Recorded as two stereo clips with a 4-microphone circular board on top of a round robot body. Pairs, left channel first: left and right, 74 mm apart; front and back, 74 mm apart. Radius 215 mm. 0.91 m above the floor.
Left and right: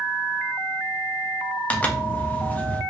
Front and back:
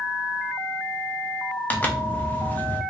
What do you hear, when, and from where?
1.7 s a zipper: 40° left, 0.9 m